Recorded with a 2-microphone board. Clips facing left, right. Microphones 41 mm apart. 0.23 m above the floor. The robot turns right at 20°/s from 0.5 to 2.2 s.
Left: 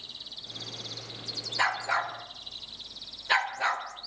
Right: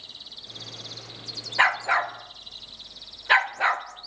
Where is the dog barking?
40° right (ahead or behind), 1.1 m; by 3.9 s 30° right (ahead or behind), 1.1 m.